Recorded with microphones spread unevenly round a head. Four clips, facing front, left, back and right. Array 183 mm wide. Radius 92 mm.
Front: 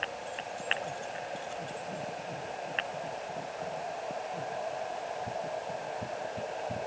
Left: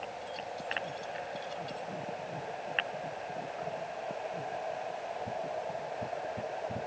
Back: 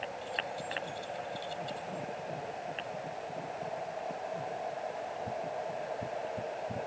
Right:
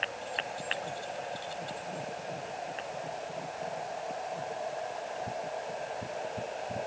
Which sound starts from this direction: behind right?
Keys jangling, at 0.2 s.